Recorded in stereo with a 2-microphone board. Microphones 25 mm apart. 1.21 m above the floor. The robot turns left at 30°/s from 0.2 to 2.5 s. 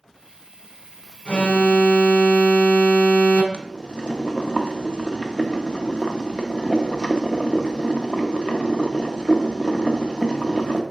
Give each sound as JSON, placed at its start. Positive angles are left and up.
{"t": 1.2, "sound": "an alarm", "azimuth_deg": 125, "distance_m": 1.1}
{"t": 3.5, "sound": "boiling", "side_deg": 35, "distance_m": 0.8}